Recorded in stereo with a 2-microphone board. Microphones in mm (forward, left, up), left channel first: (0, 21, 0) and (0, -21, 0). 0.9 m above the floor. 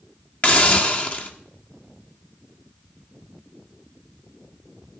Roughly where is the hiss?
Left.